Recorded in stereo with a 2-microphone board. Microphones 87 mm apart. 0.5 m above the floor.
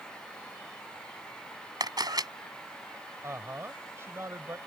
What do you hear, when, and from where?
1.8 s a camera shutter: 50° right (ahead or behind)
3.2 s a woman speaking: 30° right (ahead or behind)